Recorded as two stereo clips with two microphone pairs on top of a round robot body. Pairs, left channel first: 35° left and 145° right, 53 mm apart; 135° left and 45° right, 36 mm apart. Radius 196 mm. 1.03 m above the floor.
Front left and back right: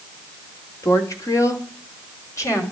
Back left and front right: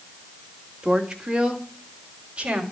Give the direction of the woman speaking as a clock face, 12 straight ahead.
11 o'clock.